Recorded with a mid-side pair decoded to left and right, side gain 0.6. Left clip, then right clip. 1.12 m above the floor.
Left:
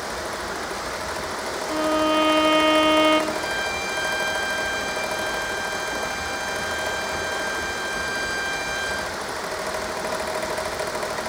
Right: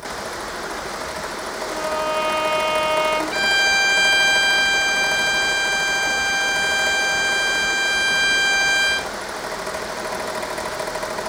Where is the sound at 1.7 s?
35° left, 1.9 m.